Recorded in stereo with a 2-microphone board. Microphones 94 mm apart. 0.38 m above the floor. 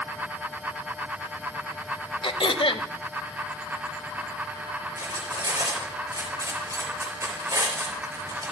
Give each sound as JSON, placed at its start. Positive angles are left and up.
{"t": 2.2, "sound": "throat clearing", "side_deg": 65, "distance_m": 0.5}
{"t": 5.0, "sound": "cutlery clinking", "side_deg": -35, "distance_m": 4.0}